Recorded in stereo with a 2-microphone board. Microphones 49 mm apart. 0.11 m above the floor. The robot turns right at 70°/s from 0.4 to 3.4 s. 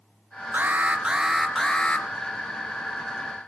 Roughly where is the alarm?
Ahead right.